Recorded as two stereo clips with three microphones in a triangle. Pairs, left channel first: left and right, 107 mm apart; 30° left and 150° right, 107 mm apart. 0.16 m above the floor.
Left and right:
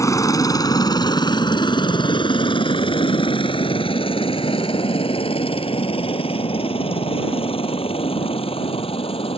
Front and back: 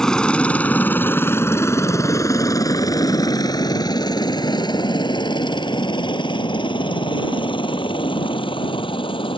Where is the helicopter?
110° left; by 9.4 s 65° left.